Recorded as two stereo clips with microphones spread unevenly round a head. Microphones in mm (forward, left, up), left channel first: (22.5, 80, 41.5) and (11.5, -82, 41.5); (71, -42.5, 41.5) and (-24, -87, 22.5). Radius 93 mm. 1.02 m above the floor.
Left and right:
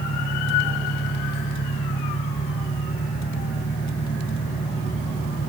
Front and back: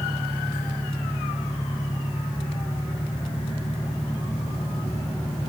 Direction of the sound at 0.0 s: 95° left.